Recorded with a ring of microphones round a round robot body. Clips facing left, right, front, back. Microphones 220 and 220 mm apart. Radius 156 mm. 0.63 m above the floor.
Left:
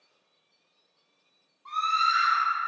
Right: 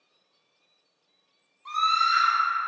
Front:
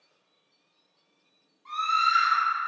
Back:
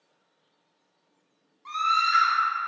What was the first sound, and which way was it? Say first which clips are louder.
A scream: right 2 dB, back 1 dB; 155° right.